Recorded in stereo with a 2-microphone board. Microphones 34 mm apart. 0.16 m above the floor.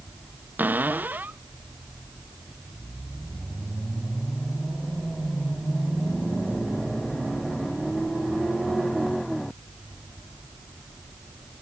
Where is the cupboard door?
65° right (ahead or behind).